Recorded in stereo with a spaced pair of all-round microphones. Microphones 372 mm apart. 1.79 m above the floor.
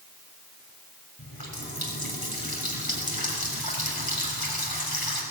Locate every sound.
1.2 s a running tap: 75° left (ahead or behind), 6.5 m